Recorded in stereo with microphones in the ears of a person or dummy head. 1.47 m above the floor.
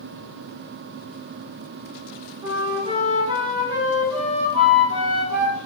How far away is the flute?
About 0.6 m.